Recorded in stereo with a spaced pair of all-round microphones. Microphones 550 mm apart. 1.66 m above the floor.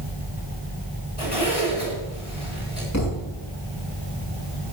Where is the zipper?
85° left, 9 m.